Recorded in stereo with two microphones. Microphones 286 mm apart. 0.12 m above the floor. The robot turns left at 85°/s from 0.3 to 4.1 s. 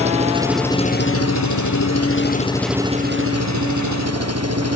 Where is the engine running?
155° right; by 4.8 s 120° right.